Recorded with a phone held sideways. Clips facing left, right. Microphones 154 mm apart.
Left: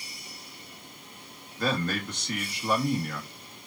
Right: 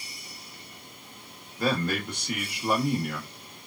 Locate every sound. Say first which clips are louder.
1.6 s a man speaking: right 2 dB; 10° right (ahead or behind), 1.4 m